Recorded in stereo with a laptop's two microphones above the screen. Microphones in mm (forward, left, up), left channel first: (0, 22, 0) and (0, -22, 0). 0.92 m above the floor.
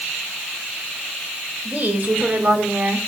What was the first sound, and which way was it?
A woman speaking, 30° right (ahead or behind).